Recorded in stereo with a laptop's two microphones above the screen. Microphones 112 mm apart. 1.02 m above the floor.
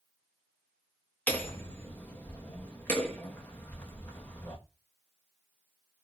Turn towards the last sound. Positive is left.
turn(degrees=15)  # may be behind; listen again after turning